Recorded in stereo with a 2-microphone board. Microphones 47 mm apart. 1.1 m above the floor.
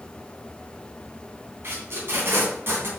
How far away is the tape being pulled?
About 2.5 m.